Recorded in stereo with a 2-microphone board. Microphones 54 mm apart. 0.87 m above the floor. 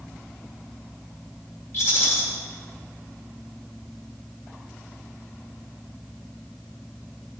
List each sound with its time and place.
1.7 s a rattle: 45° left (ahead or behind), 2 m